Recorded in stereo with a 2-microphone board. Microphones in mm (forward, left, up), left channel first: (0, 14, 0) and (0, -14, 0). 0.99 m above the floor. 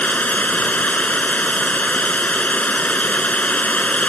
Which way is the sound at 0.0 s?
65° left (ahead or behind).